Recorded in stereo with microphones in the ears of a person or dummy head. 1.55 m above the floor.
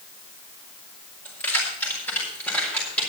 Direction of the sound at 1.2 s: 10° left (ahead or behind).